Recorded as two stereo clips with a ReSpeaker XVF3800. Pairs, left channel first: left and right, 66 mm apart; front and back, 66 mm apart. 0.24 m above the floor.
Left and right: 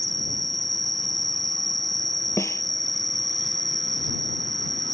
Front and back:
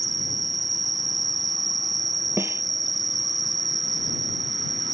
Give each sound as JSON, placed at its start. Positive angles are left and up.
{"t": 0.0, "sound": "an insect", "azimuth_deg": 180}
{"t": 2.4, "sound": "a snare drum", "azimuth_deg": 135}